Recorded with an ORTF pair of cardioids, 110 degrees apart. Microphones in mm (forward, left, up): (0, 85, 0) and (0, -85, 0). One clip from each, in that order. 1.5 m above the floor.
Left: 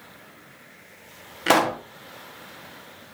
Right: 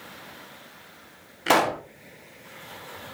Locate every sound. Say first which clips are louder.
1.5 s a pop: left 1 dB; 20° left, 1.5 m